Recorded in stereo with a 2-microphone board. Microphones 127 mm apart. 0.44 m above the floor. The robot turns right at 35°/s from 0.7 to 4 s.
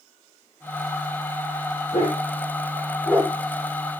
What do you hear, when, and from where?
1.9 s a dog barking: 55° left (ahead or behind), 6 m; by 3.3 s 5° left (ahead or behind), 6 m